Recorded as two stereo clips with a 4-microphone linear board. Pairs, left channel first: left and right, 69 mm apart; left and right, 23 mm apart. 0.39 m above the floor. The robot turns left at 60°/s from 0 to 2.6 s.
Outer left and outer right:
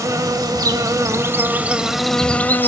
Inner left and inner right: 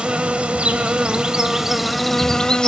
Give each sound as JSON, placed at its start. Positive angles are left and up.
{"t": 0.0, "sound": "an insect", "azimuth_deg": -60, "distance_m": 0.9}